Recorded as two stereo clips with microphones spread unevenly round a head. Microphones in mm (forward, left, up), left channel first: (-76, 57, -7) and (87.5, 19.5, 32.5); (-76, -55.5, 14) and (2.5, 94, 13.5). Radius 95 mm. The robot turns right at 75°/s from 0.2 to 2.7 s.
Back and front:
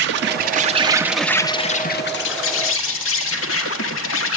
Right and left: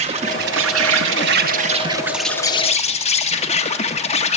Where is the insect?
Straight ahead, 0.8 m; by 4.4 s 170° right, 0.8 m.